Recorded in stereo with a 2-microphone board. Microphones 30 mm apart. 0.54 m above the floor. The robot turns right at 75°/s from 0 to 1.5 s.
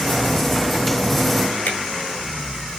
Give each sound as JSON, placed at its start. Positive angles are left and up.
{"t": 1.6, "sound": "a finger snap", "side_deg": 80, "distance_m": 8.0}